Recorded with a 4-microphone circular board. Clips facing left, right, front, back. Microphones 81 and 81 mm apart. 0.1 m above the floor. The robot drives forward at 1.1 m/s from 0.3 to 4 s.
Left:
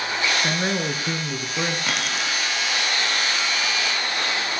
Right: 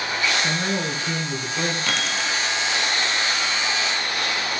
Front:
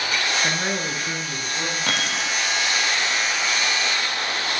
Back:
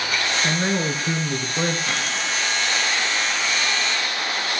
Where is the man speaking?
70° left, 1.4 m; by 1.8 s 155° left, 1.9 m.